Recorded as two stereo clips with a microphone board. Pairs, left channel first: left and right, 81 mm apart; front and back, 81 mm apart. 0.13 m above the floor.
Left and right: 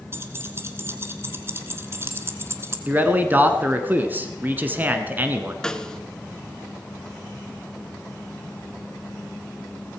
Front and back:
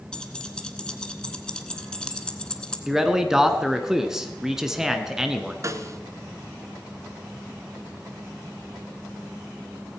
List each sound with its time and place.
0.1 s keys jangling: 70° right, 1.2 m
2.9 s a man speaking: 105° right, 1.2 m
5.6 s a snare drum: 165° left, 0.8 m